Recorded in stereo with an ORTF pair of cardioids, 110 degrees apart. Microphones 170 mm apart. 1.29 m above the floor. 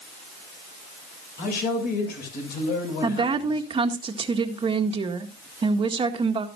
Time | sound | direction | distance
1.4 | a man speaking | 65° left | 7 m
3.0 | a woman speaking | 30° right | 1.8 m